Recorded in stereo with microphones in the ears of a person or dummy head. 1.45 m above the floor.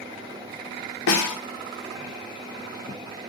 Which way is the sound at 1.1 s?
70° left (ahead or behind).